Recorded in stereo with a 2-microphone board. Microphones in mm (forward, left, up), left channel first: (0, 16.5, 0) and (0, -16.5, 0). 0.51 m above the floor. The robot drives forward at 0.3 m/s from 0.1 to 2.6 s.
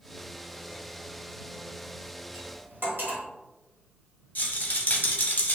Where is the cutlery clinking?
70° right (ahead or behind), 0.9 m.